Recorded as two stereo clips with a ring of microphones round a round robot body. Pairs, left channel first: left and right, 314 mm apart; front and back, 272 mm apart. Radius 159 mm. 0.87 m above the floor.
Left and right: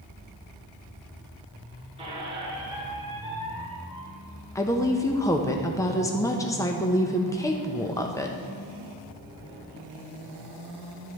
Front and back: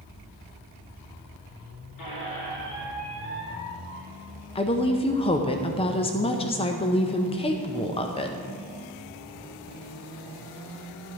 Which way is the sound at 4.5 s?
25° left.